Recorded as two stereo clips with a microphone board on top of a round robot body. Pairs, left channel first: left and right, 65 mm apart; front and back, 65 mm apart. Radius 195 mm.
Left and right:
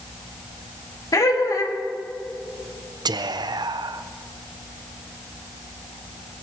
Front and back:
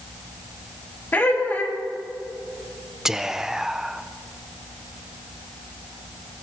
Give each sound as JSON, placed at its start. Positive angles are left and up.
{"t": 1.1, "sound": "laughter", "azimuth_deg": 65, "distance_m": 2.5}
{"t": 3.0, "sound": "whispering", "azimuth_deg": -95, "distance_m": 0.7}